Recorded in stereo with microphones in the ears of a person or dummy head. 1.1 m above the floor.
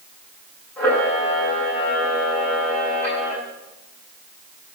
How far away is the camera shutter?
About 8.5 m.